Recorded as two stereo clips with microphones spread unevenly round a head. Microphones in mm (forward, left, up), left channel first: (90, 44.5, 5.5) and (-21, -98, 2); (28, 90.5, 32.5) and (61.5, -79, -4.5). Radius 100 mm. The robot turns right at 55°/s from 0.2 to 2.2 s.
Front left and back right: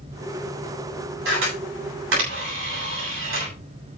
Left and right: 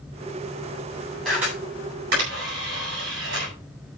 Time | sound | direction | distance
1.2 | a camera shutter | 175° right | 9 m